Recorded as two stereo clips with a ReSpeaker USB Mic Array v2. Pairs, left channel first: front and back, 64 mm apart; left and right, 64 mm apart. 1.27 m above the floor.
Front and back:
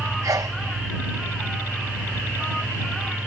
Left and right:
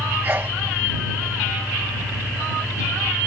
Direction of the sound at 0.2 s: 150° right.